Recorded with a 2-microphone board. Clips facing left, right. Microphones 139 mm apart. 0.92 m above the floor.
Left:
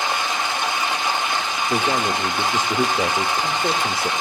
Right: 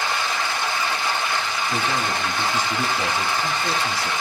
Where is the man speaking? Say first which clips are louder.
Left 5 dB; 50° left (ahead or behind), 1.4 m.